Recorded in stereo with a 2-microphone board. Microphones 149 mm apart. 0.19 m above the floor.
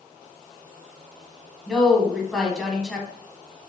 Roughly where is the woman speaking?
Centre.